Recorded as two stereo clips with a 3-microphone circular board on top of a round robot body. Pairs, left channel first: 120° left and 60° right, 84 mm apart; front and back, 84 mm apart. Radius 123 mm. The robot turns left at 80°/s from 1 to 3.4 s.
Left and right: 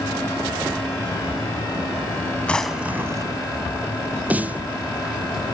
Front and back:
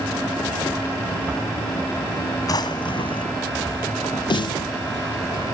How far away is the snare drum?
About 0.6 m.